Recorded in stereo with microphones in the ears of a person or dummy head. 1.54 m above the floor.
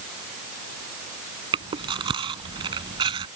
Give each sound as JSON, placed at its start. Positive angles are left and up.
{"t": 1.5, "sound": "chewing", "side_deg": -30}